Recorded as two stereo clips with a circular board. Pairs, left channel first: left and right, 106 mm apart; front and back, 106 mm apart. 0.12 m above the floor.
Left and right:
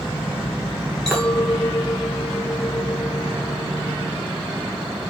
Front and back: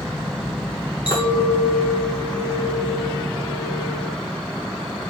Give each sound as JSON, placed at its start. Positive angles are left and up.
{"t": 1.1, "sound": "a clink", "azimuth_deg": 10, "distance_m": 1.4}